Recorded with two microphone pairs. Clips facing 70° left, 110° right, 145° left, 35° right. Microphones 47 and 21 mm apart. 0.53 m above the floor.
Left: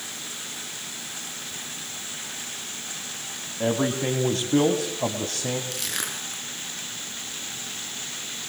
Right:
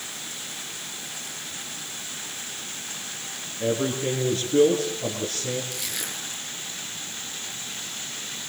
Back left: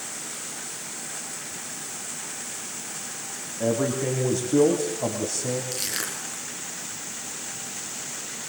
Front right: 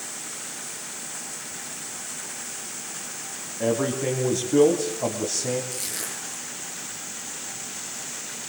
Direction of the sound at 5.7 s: 105° left.